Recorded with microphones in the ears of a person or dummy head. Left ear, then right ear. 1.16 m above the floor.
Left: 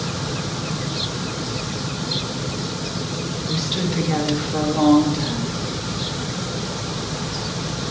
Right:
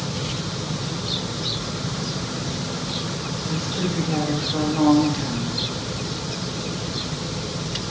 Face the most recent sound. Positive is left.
turn(degrees=-5)  # may be behind; listen again after turning